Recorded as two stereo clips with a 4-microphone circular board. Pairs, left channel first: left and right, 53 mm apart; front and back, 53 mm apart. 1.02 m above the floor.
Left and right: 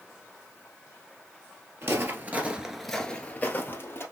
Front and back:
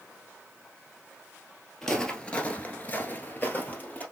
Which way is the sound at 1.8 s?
80° right.